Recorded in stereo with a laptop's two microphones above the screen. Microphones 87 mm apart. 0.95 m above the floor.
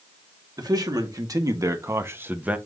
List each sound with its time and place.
0.6 s a man speaking: 50° right (ahead or behind), 2.5 m; by 2.6 s 15° right (ahead or behind), 1.0 m